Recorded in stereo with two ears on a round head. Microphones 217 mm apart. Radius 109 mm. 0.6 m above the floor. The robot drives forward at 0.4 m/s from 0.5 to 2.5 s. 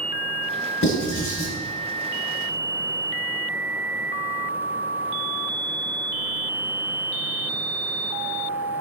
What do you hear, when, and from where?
0.8 s writing: 50° left (ahead or behind), 1.6 m; by 1.5 s 55° left (ahead or behind), 1.5 m